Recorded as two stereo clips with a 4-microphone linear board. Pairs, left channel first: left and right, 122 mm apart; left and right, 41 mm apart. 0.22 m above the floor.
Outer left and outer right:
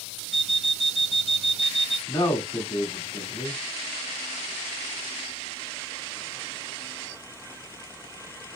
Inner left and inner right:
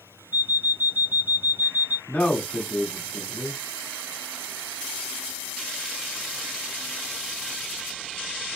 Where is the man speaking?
45° left (ahead or behind), 1.7 m.